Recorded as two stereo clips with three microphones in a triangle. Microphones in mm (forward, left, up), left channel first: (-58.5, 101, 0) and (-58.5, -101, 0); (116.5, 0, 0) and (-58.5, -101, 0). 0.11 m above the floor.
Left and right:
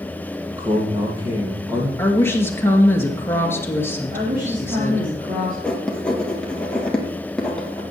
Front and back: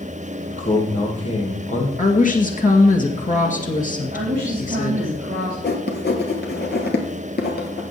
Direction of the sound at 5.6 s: 5° left.